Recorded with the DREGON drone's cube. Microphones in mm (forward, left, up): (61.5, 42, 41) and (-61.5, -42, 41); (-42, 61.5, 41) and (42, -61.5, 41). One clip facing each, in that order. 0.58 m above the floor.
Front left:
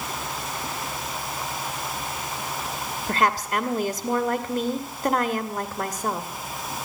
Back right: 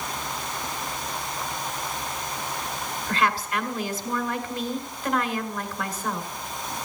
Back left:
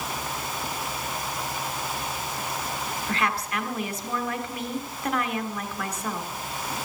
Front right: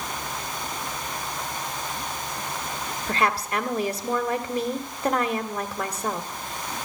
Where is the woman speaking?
5° right, 1.6 m.